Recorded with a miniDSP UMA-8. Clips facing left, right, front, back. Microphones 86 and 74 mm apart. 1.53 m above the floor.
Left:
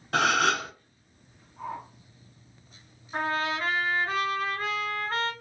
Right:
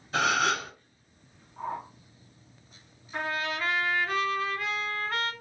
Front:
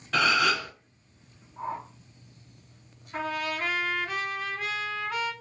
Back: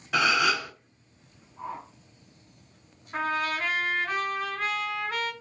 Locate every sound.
0.1 s a gasp: 95° left, 0.7 m
1.6 s a whoosh: 45° right, 0.9 m
3.1 s a trumpet: 140° left, 1.5 m